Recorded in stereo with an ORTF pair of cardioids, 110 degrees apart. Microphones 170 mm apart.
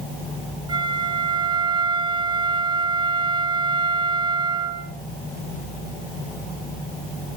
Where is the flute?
25° right, 7 m.